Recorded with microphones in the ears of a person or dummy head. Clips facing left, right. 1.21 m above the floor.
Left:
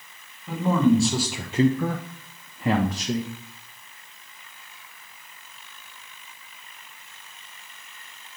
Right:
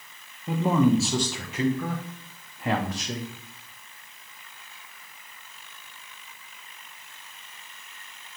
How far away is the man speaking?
About 0.9 m.